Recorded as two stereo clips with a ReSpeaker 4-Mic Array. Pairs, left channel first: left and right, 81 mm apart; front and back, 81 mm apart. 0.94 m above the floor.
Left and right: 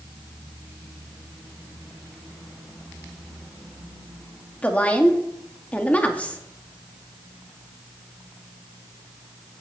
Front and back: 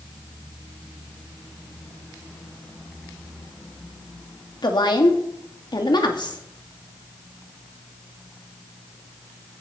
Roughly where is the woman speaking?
Ahead.